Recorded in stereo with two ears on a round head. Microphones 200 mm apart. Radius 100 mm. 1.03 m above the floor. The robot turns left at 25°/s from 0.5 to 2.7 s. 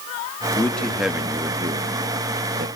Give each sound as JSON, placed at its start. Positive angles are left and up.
{"t": 0.6, "sound": "a man speaking", "side_deg": 10, "distance_m": 1.5}